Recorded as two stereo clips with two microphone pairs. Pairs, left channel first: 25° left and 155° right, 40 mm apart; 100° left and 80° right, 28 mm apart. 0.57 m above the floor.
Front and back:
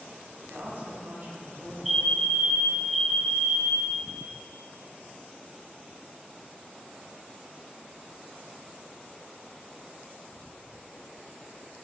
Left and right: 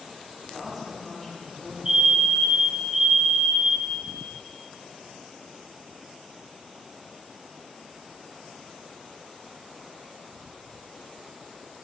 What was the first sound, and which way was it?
A woman speaking, 160° right.